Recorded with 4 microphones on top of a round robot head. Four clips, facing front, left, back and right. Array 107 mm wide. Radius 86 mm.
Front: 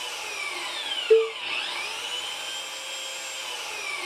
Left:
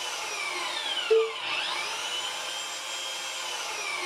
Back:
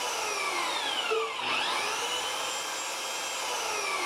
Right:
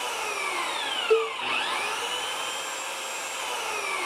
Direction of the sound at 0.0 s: 125° right.